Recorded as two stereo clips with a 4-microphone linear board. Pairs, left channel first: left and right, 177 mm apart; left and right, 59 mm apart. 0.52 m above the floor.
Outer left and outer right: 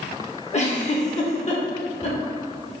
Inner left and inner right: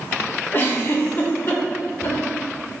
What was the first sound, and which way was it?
A giggle, 40° left (ahead or behind).